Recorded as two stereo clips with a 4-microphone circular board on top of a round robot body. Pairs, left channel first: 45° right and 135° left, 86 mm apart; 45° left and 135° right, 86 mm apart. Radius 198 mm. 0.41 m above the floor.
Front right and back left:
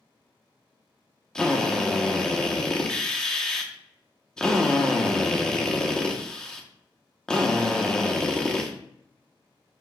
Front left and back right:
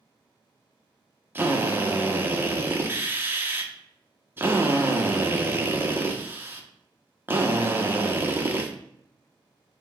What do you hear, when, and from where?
1.4 s a drill: 115° right, 1.1 m